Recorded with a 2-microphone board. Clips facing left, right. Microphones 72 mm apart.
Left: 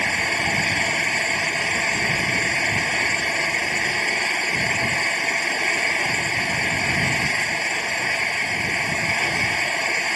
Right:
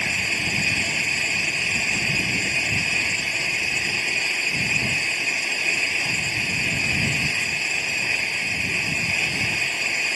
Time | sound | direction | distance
0.0 | an engine running | 55° left (ahead or behind) | ?